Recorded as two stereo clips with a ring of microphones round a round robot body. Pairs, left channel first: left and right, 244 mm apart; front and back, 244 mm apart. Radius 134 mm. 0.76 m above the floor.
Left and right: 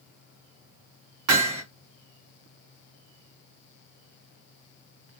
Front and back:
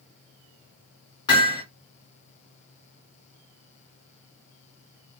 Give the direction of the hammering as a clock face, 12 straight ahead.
3 o'clock.